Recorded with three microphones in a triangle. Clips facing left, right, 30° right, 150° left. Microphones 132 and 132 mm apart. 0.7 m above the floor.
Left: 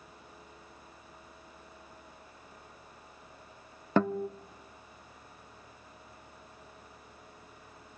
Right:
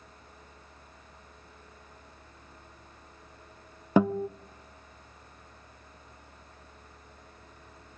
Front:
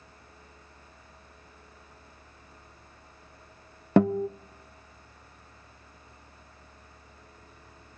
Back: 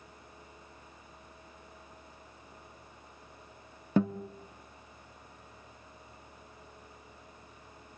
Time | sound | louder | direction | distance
4.0 | a guitar | right 4 dB, front 7 dB | 10° right | 0.5 m